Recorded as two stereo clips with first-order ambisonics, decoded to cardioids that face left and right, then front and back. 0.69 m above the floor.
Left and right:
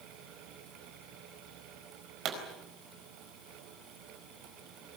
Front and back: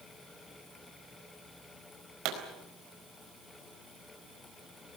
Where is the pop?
140° right, 4.5 m.